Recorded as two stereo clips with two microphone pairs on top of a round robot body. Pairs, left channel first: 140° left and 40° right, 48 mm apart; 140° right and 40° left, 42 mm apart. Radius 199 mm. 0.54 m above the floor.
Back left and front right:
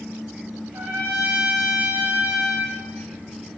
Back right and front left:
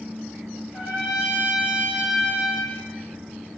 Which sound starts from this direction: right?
A trumpet, at 0.7 s.